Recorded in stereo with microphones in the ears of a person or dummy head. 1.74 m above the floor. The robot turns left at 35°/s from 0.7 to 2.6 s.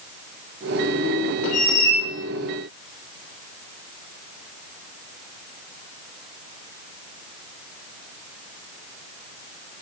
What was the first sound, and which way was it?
A squeak, 45° left (ahead or behind).